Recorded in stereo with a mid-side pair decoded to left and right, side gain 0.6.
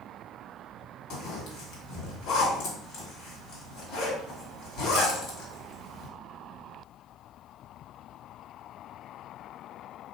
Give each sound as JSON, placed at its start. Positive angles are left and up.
{"t": 1.1, "sound": "a zipper", "azimuth_deg": 60, "distance_m": 1.5}